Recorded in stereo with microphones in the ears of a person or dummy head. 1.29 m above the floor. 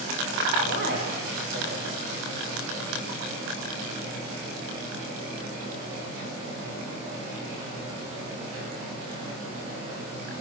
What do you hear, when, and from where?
0.6 s a man speaking: 55° right (ahead or behind), 6 m